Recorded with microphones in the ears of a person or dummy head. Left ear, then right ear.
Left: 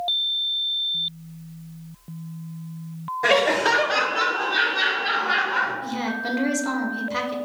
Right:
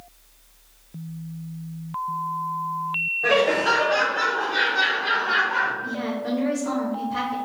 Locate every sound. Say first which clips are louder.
3.2 s laughter: left 2 dB; 40° left (ahead or behind), 0.5 m; by 5.7 s 10° left (ahead or behind), 1.4 m
5.8 s a woman speaking: left 1 dB; 60° left (ahead or behind), 0.8 m